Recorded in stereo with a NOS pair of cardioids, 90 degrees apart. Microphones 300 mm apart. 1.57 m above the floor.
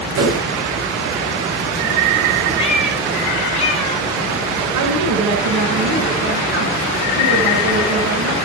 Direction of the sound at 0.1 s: 70° right.